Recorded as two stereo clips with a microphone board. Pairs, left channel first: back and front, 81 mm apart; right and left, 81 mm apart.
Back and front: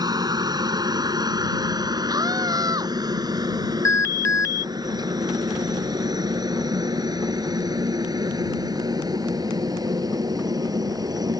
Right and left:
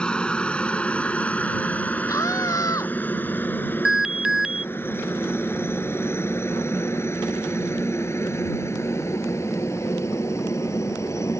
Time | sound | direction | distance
0.0 | a helicopter | 15° right | ?
2.1 | a scream | 40° right | ?
3.9 | an alarm | 170° left | ?